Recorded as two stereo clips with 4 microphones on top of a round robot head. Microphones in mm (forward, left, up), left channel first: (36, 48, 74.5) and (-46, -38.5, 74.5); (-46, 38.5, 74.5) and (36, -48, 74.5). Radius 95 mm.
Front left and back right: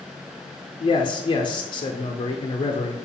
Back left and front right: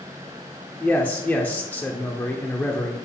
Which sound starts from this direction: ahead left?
A man speaking, at 0.8 s.